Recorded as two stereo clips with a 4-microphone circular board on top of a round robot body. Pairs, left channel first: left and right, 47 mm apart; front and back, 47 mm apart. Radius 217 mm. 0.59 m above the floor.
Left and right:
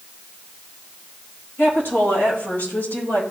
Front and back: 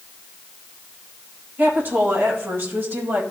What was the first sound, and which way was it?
A woman speaking, 135° left.